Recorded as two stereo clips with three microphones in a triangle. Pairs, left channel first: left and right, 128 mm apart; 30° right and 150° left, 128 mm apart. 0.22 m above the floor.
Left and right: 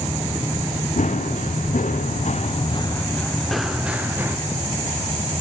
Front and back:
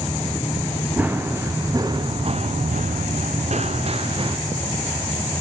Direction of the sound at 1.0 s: 75° left.